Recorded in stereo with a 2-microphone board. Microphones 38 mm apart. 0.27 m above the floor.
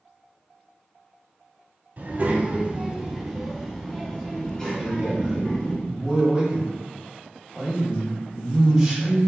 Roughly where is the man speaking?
Centre.